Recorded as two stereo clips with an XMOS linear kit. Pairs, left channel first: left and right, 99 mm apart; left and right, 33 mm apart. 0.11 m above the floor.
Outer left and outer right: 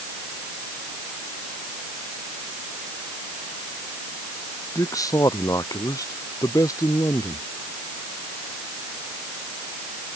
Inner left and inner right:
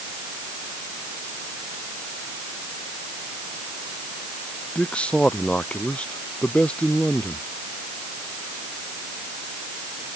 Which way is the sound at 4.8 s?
35° left (ahead or behind).